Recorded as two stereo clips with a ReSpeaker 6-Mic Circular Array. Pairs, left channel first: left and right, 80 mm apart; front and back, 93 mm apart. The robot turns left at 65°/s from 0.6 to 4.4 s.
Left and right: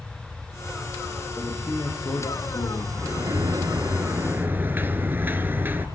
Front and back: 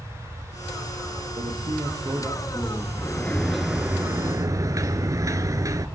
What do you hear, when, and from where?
1.4 s a man speaking: 170° left, 6 m; by 2.9 s 70° left, 6 m
3.0 s a sliding door: 50° right, 1.7 m; by 5.9 s 145° right, 1.7 m